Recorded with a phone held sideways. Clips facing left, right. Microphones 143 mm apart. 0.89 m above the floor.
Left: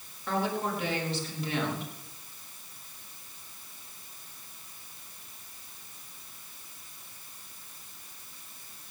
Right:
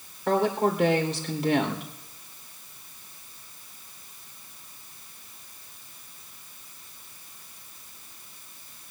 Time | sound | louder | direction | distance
0.3 | a woman speaking | right 7 dB | 75° right (ahead or behind) | 3.5 m